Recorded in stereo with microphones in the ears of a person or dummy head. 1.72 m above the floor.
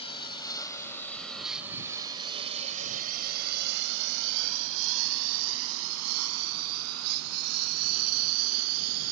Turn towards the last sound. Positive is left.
turn(degrees=-80)